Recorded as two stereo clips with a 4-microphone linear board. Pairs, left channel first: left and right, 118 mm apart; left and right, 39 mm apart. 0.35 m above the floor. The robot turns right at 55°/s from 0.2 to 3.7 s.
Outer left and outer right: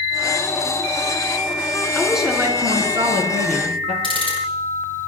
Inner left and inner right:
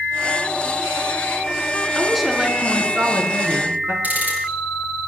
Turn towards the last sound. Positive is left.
turn(degrees=-50)  # may be behind; listen again after turning